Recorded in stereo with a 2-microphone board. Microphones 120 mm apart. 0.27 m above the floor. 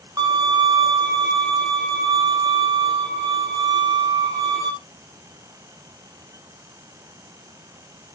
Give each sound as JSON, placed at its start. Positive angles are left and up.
{"t": 0.2, "sound": "a violin", "side_deg": -30, "distance_m": 3.5}